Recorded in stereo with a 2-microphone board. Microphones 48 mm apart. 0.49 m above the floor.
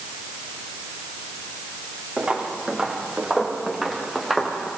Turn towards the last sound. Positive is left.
turn(degrees=5)  # may be behind; listen again after turning